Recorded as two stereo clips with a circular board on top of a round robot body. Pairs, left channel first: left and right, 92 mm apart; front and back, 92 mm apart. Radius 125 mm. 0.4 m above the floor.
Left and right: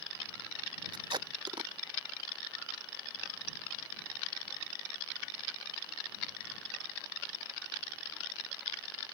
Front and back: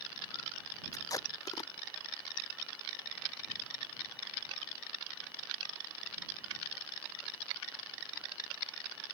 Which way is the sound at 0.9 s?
55° right.